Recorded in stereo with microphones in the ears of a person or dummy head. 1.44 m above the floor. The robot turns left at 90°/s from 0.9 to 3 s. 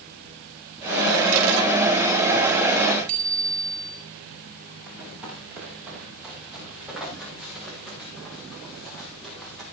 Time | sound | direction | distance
3.1 | a bicycle bell | 45° right (ahead or behind) | 5 m
4.9 | running footsteps | 10° right (ahead or behind) | 9.5 m